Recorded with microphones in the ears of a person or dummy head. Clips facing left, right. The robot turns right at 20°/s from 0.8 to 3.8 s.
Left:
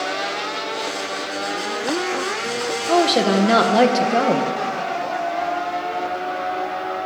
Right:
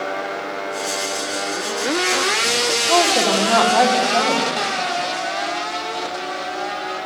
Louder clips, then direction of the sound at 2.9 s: Left 2 dB; 20° left (ahead or behind).